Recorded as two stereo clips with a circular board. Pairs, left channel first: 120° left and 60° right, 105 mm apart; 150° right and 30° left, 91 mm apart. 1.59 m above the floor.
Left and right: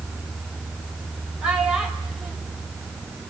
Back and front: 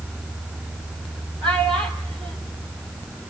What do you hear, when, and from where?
1.4 s a child speaking: 25° left, 4.5 m